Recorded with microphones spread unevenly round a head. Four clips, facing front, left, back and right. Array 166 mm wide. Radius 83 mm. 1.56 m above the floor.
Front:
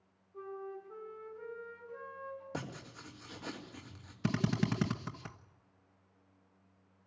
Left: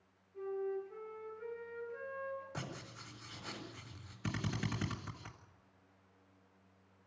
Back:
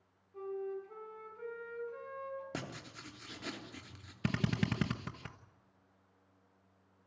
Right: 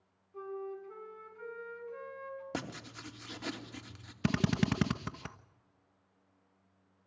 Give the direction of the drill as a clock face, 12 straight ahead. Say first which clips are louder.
Right 9 dB, front 2 dB; 4 o'clock.